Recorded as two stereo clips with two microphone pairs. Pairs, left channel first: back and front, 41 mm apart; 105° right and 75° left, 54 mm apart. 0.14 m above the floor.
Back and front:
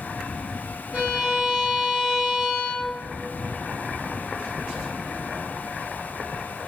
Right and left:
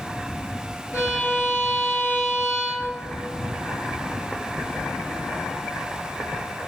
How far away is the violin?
About 1.2 m.